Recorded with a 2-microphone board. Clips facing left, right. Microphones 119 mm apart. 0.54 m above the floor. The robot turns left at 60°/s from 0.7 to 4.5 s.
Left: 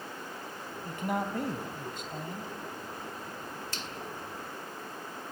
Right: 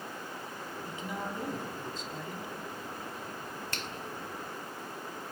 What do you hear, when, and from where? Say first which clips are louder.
0.8 s a man speaking: left 7 dB; 130° left, 3 m; by 2.5 s 30° left, 3 m
3.7 s a finger snap: right 1 dB; 60° right (ahead or behind), 2 m; by 3.9 s 55° right (ahead or behind), 2 m